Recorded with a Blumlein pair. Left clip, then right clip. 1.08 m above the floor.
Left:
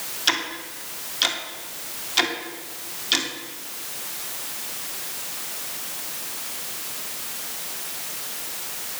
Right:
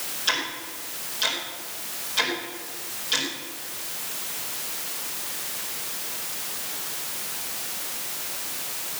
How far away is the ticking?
About 2.5 m.